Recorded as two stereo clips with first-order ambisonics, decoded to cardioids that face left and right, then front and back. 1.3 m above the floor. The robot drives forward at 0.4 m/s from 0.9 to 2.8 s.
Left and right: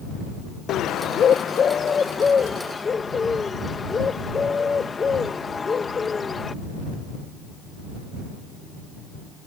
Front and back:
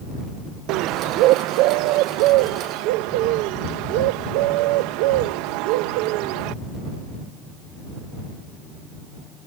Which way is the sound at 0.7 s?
145° left.